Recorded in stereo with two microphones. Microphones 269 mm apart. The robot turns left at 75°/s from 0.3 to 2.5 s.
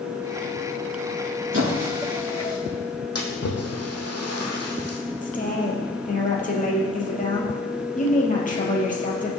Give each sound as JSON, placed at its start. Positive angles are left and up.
{"t": 1.5, "sound": "a squeak", "side_deg": -50, "distance_m": 6.0}
{"t": 3.1, "sound": "a splash", "side_deg": 65, "distance_m": 2.5}
{"t": 5.2, "sound": "a woman speaking", "side_deg": 30, "distance_m": 3.5}